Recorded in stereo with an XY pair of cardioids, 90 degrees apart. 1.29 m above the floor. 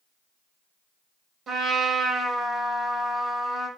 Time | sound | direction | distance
1.5 | a trumpet | 65° right | 4 m